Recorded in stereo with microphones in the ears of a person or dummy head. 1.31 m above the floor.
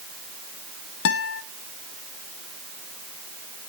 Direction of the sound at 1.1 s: 65° left (ahead or behind).